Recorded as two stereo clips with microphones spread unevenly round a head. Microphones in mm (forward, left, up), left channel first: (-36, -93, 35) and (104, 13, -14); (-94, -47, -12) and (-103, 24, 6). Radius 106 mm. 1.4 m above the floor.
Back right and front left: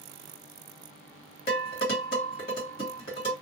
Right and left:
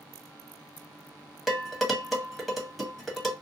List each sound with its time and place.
1.5 s dishes clattering: straight behind, 1.3 m